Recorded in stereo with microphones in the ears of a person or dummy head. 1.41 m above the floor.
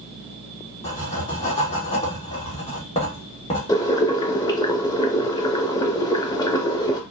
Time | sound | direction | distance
0.8 | writing | 30° left (ahead or behind) | 1.2 m
3.7 | boiling | 20° left (ahead or behind) | 0.7 m